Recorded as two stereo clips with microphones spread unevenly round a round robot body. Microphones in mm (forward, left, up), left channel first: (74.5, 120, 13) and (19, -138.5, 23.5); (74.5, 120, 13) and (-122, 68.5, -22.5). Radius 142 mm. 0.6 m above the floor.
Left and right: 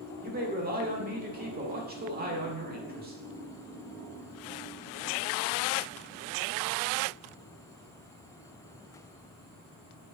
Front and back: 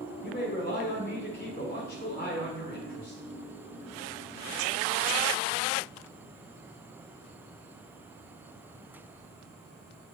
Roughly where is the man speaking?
Ahead right.